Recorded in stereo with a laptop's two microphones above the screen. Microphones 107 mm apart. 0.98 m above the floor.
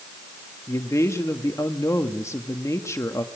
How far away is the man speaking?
About 1.4 m.